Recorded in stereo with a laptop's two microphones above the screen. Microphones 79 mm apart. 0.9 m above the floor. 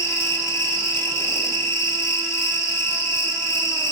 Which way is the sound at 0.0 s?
30° left (ahead or behind).